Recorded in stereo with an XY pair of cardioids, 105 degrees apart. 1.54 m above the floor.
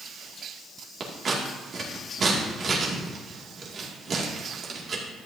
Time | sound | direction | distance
1.0 | scissors | 45° right | 2 m